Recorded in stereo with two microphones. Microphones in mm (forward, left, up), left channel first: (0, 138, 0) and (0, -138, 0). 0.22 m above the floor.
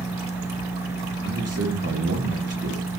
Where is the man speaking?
60° right (ahead or behind), 3.5 m.